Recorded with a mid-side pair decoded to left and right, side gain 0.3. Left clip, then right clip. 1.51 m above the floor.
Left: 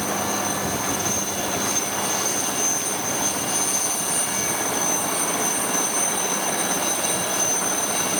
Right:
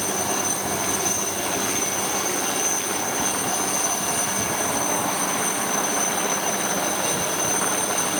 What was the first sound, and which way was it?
Only background noise.